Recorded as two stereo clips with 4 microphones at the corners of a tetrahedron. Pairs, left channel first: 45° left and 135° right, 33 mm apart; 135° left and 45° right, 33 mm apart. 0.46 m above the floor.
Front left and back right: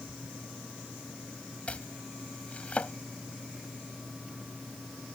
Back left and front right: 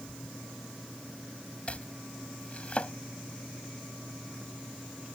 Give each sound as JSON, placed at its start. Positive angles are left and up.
{"t": 1.7, "sound": "chopping", "azimuth_deg": 90}